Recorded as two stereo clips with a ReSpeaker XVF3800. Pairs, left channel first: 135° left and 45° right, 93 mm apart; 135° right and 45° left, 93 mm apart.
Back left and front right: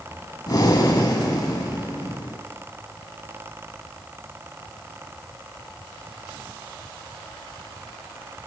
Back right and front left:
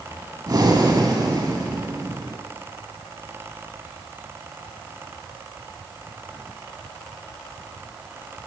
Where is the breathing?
90° left, 0.6 m.